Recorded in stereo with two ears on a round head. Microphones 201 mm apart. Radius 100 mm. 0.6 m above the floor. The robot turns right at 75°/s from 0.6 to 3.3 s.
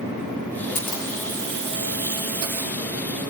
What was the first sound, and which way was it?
A camera shutter, 145° left.